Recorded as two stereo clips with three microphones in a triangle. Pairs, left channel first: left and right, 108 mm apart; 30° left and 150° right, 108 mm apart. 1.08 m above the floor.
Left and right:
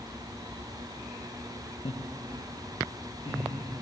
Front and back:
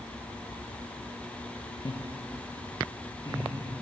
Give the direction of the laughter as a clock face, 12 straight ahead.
10 o'clock.